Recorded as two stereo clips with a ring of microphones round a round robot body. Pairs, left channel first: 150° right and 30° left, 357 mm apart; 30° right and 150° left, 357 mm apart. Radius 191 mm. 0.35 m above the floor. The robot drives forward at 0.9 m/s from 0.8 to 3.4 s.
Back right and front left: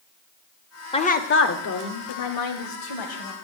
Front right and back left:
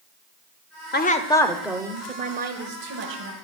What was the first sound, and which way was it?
A woman speaking, 80° right.